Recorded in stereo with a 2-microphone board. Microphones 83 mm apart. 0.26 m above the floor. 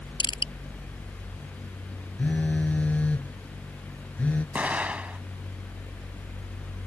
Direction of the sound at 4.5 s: 15° right (ahead or behind).